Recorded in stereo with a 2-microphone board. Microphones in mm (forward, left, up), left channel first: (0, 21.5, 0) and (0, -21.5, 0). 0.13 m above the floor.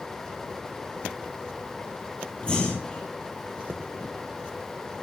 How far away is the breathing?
About 1.4 m.